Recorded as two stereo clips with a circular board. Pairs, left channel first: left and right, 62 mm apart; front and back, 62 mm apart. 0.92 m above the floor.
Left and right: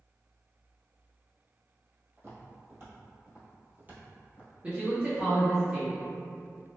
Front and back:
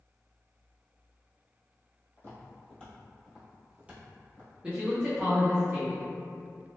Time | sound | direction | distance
2.2 | footsteps | 50° right | 1.5 m
4.6 | a man speaking | 135° right | 0.6 m